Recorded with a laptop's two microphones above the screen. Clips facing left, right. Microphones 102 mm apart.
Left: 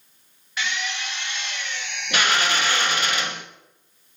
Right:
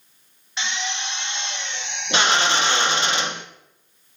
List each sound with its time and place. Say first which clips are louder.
0.6 s a drill: even; 25° right (ahead or behind), 0.8 m